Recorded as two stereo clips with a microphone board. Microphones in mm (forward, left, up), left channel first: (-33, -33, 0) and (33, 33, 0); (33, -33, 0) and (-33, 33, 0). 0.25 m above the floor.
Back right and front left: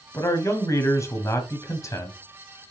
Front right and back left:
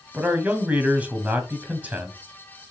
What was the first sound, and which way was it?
A man speaking, 160° right.